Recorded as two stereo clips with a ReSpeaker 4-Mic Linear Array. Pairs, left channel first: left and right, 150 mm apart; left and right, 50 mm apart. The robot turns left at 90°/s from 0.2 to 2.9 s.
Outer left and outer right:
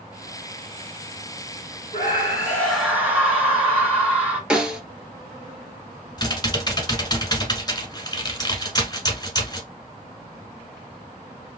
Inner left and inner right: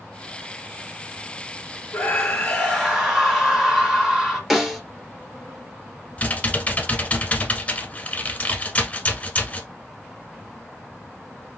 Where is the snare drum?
5° right (ahead or behind), 1.3 m.